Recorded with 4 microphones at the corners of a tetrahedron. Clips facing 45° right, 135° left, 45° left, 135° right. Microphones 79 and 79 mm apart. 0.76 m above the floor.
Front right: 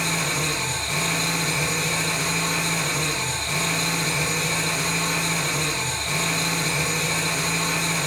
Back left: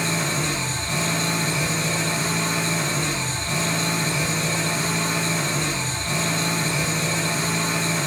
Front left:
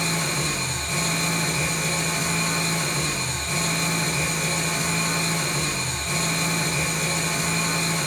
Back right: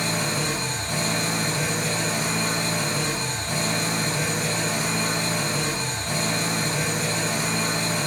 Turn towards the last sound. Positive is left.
turn(degrees=-165)